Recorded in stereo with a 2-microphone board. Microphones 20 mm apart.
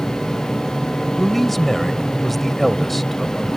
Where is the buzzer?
I don't hear a buzzer.